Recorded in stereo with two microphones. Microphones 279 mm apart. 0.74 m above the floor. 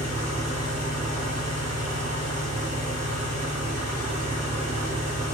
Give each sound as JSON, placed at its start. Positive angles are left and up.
{"t": 0.0, "sound": "an engine running", "side_deg": -70, "distance_m": 0.7}